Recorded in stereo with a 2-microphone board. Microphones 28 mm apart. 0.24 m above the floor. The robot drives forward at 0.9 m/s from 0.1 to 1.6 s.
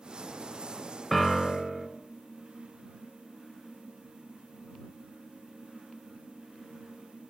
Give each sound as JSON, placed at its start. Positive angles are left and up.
{"t": 1.1, "sound": "a piano", "side_deg": 10, "distance_m": 0.6}